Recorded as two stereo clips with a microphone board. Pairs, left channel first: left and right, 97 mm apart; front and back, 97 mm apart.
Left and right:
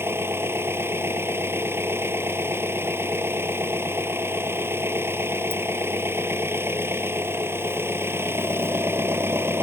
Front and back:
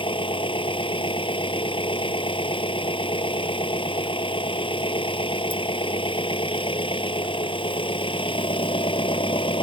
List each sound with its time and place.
0.0 s an engine running: 25° right